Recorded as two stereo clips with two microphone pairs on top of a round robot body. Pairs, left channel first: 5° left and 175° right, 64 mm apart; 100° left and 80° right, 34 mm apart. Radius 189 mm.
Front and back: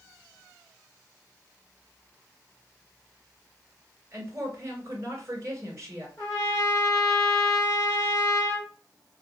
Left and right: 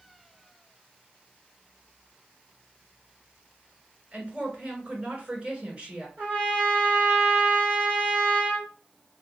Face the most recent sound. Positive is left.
turn(degrees=-45)